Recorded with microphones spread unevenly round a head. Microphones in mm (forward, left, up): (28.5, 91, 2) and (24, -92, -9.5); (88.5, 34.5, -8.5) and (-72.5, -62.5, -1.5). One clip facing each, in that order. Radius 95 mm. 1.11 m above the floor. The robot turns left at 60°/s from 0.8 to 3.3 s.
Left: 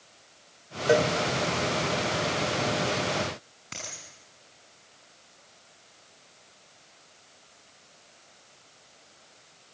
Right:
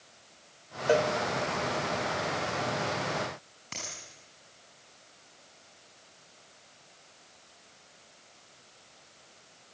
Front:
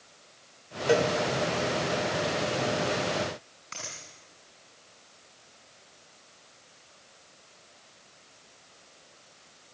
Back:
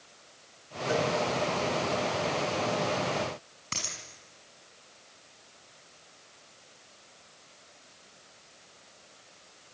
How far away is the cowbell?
About 1.8 m.